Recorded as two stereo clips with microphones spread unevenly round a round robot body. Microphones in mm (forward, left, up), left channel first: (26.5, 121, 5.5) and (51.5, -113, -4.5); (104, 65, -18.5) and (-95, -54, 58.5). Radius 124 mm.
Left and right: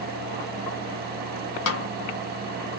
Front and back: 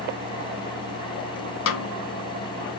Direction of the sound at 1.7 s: 65° left.